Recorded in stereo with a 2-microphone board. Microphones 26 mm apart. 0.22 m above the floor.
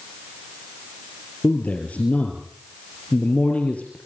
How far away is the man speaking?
About 5 m.